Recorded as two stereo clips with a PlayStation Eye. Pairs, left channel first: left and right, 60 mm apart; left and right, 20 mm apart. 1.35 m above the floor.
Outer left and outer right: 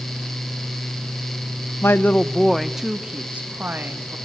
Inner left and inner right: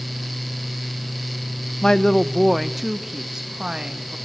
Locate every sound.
1.8 s a woman speaking: 40° left (ahead or behind), 0.7 m; by 4.2 s 35° right (ahead or behind), 1.7 m